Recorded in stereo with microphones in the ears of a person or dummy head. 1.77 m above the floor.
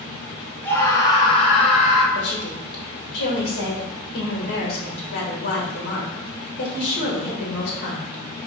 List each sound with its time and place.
0.7 s a scream: 15° left (ahead or behind), 1.2 m; by 2.0 s 50° left (ahead or behind), 1.3 m
2.1 s a woman speaking: 65° left (ahead or behind), 1.3 m